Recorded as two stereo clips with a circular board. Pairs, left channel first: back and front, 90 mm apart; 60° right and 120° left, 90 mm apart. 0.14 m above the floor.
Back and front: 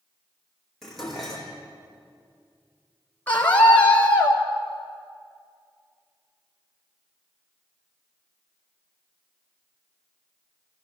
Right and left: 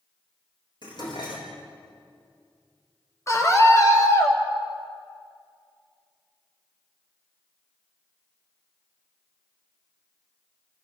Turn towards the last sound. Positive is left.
turn(degrees=-110)